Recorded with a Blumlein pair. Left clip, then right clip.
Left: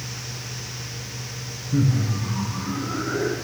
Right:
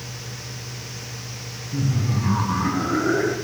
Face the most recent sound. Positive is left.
turn(degrees=-60)